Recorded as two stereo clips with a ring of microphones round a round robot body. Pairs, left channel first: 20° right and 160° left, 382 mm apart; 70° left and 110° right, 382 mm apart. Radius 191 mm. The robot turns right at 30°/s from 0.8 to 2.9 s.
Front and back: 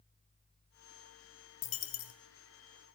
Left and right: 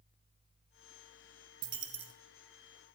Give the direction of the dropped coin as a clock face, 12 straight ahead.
2 o'clock.